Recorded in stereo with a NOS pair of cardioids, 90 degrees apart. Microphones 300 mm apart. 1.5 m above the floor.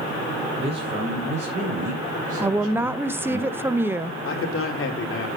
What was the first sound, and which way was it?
A man speaking, 20° right.